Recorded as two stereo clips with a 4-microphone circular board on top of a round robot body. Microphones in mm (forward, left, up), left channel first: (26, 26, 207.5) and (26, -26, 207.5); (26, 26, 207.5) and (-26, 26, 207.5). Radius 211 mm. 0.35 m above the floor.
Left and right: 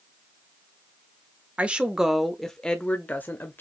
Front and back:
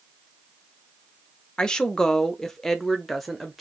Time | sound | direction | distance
1.6 | a woman speaking | 60° right | 1.0 m